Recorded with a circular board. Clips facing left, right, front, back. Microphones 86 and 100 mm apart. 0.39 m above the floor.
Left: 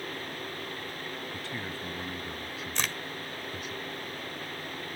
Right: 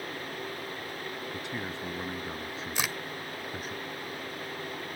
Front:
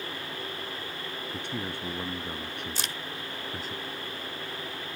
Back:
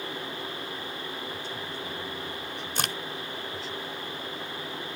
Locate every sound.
1.3 s a man speaking: 15° right; by 3.8 s 40° right
2.8 s a crack: 170° right